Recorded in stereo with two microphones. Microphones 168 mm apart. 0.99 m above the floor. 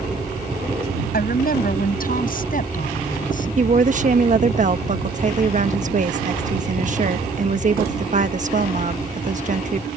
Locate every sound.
1.1 s a woman speaking: 65° left (ahead or behind); by 3.5 s 55° left (ahead or behind)
3.6 s a woman speaking: 50° right (ahead or behind)